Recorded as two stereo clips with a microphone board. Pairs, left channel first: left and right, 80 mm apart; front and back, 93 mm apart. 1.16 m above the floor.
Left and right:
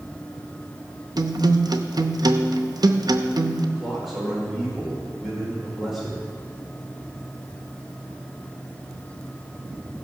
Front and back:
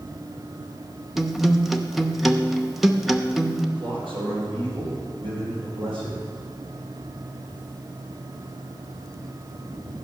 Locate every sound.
1.2 s a guitar: 95° right, 0.6 m
3.8 s a man speaking: 175° right, 4 m